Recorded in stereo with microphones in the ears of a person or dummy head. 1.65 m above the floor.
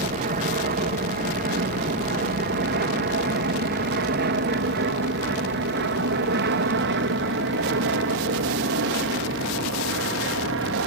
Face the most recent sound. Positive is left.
turn(degrees=-60)  # may be behind; listen again after turning